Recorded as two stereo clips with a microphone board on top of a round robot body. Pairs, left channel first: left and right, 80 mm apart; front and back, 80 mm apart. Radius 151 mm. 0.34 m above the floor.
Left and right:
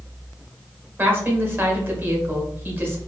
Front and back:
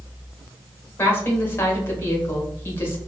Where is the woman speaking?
45° right, 1.2 m.